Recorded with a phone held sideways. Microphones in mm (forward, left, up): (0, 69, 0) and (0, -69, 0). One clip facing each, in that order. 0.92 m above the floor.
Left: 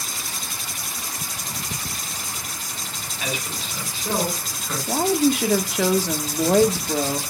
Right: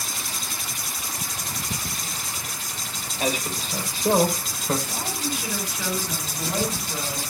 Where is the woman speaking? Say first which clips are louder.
Left 11 dB; 80° left, 1.6 m.